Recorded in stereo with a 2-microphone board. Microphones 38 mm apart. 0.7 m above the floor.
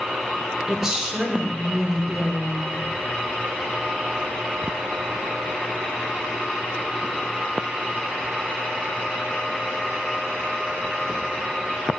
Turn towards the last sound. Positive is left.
turn(degrees=-15)  # may be behind; listen again after turning